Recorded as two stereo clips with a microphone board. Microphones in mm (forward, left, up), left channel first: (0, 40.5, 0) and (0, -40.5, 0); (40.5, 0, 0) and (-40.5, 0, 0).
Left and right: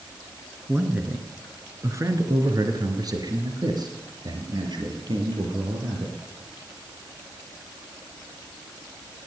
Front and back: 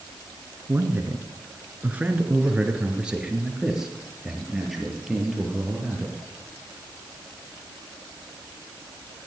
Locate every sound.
0.7 s a man speaking: 145° right, 1.8 m; by 6.2 s 90° right, 4 m